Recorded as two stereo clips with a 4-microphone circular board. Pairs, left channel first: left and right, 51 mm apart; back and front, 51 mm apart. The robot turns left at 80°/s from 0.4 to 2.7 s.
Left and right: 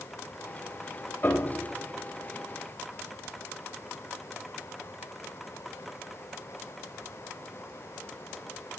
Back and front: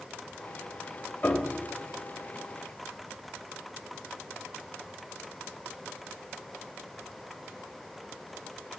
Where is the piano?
140° left, 1.0 m; by 1.7 s 105° left, 1.0 m.